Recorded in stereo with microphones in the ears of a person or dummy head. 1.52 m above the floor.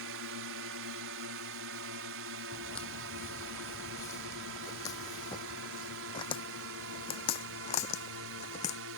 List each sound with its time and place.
0.0 s a drone: 70° right (ahead or behind); by 9.0 s 75° right (ahead or behind)
2.5 s footsteps: centre (ahead or behind); by 8.8 s 40° left (ahead or behind)